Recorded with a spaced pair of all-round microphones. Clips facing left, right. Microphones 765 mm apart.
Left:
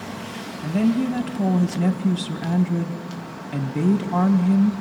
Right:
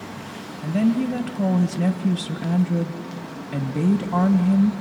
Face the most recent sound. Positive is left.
turn(degrees=-5)  # may be behind; listen again after turning